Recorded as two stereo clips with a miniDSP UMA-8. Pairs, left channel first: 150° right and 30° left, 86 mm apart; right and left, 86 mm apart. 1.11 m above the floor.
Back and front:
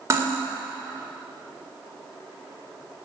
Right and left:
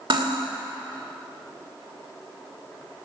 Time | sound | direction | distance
0.1 | cutlery clinking | 85° left | 2 m